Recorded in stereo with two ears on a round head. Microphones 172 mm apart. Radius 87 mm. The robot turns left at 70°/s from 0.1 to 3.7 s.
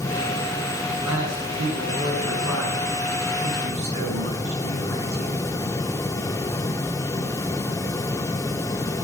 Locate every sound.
0.9 s a man speaking: 115° left, 7 m; by 5.3 s 85° right, 7 m